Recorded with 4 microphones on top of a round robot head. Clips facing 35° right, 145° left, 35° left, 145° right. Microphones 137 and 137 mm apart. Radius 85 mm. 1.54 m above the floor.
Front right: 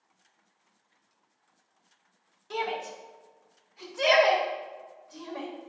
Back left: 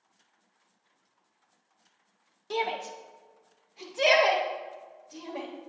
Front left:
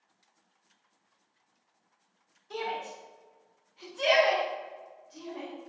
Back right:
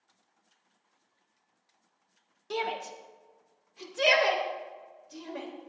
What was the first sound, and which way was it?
A shout, 160° right.